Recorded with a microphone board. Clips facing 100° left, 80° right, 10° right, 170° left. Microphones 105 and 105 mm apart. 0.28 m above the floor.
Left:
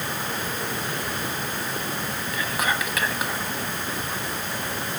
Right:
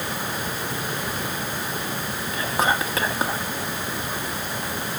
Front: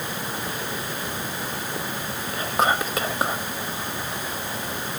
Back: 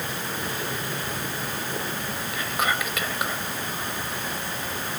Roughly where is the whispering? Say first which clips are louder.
Right 4 dB, front 5 dB; ahead right.